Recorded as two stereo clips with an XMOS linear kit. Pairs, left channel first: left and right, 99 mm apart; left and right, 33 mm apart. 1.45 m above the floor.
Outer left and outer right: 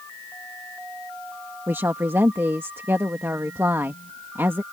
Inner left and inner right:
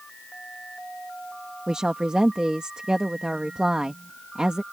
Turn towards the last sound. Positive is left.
turn(degrees=-25)  # may be behind; listen again after turning